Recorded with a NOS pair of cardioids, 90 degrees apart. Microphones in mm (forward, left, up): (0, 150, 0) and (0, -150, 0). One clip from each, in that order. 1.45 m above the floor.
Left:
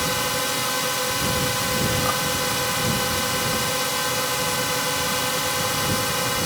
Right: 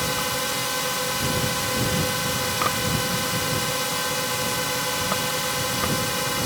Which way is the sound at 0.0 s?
10° left.